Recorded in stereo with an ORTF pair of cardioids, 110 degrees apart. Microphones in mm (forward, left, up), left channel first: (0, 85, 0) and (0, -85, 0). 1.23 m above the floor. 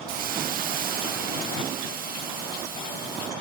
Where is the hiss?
60° right, 0.7 m.